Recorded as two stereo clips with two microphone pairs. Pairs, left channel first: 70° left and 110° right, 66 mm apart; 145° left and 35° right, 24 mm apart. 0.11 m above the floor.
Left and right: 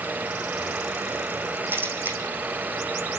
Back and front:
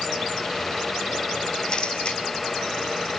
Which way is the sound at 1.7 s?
165° right.